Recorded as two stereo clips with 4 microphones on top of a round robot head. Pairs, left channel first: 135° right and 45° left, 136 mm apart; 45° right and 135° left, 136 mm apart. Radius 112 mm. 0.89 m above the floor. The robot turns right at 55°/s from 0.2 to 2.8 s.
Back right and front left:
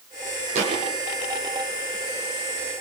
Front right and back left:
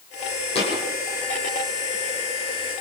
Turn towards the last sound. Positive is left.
turn(degrees=130)